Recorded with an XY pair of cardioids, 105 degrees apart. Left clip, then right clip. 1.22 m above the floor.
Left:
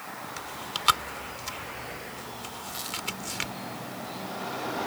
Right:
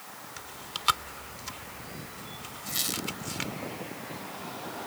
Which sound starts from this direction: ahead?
Chewing, at 0.4 s.